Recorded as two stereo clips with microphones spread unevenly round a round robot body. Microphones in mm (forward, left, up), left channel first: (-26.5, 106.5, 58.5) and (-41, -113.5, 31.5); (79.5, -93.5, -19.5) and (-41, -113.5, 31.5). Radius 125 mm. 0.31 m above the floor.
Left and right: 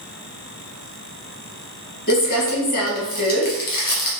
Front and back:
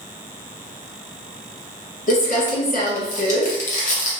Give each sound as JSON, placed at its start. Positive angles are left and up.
{"t": 2.1, "sound": "crumpling", "azimuth_deg": 30, "distance_m": 0.7}